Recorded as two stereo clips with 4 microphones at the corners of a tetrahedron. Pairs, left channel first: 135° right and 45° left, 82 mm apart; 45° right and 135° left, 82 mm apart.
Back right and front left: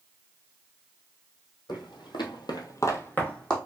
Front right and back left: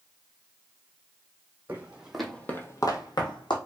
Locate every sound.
1.7 s footsteps: 160° right, 1.0 m; by 3.6 s 55° right, 1.0 m